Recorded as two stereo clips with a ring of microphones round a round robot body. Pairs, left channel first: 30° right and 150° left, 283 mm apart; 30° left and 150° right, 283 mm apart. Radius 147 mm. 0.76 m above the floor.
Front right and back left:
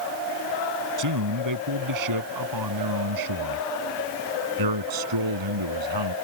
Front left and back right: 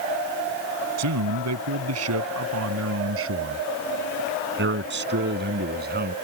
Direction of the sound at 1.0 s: 175° left.